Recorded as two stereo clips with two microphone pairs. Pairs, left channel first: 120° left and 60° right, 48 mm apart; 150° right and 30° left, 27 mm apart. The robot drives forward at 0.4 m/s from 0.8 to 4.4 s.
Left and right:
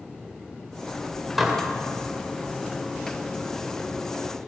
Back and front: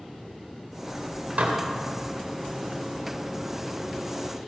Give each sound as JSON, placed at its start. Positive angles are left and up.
{"t": 1.4, "sound": "dishes clattering", "azimuth_deg": 25, "distance_m": 2.0}